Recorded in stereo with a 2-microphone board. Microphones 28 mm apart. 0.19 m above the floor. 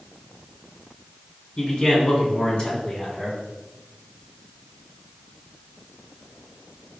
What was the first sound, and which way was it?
A man speaking, 40° left (ahead or behind).